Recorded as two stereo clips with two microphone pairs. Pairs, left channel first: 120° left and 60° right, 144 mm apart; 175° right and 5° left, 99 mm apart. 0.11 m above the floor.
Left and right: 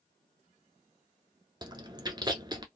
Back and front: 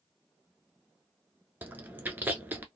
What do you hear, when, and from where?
1.6 s chewing: 45° right, 0.7 m